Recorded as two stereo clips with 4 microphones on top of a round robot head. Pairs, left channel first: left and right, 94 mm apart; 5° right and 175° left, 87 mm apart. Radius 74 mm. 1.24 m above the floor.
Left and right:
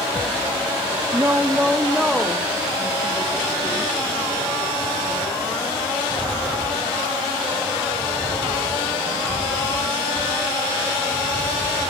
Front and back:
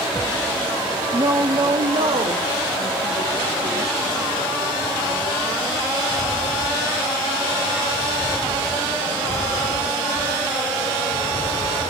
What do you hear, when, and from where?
1.1 s a woman speaking: 140° right, 0.6 m; by 3.9 s 170° left, 1.9 m